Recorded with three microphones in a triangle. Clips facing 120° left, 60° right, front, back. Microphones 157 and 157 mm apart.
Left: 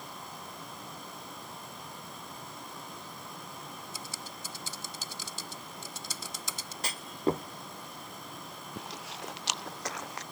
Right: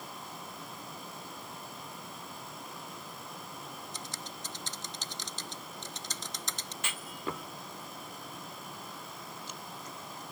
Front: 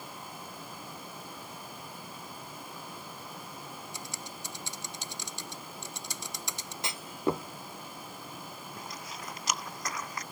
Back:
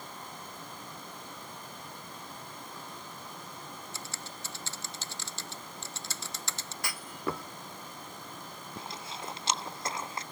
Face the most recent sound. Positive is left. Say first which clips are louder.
# left 4 dB, back 4 dB
turn(degrees=115)